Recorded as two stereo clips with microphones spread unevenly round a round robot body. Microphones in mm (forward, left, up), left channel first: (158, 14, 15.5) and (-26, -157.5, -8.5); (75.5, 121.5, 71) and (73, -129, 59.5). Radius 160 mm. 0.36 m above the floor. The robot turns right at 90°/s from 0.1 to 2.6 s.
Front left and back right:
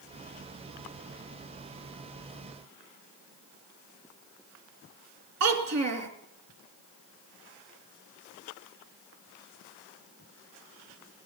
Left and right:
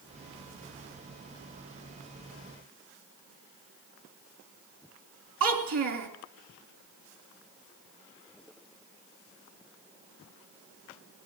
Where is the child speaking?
125° right, 3 m.